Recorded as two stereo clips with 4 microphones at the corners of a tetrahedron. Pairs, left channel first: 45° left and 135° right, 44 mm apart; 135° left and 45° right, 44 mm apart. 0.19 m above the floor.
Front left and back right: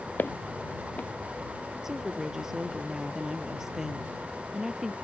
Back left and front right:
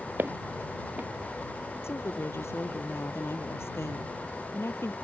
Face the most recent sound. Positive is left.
turn(degrees=145)